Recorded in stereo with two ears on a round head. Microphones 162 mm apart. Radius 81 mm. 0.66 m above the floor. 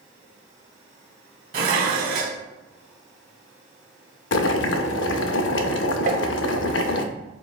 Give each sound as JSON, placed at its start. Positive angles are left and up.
{"t": 1.5, "sound": "dishes clattering", "side_deg": -50, "distance_m": 1.0}
{"t": 4.3, "sound": "boiling", "side_deg": 75, "distance_m": 0.6}
{"t": 6.1, "sound": "tapping", "side_deg": -45, "distance_m": 0.7}